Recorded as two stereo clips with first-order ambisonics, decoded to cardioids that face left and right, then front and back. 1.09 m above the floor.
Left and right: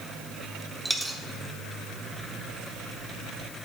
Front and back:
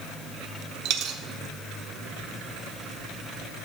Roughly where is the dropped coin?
Behind.